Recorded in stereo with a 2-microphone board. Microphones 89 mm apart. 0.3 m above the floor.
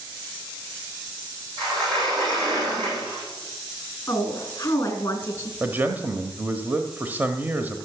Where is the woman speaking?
25° left (ahead or behind), 3 m.